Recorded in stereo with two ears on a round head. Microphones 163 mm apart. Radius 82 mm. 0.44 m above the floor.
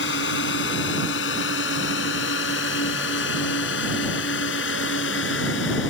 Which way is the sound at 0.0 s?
75° left (ahead or behind).